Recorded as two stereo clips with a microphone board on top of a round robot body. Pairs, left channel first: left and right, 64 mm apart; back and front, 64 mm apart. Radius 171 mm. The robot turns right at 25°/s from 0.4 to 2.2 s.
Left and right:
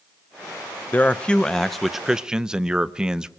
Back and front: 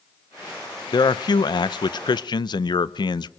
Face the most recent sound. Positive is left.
turn(degrees=-170)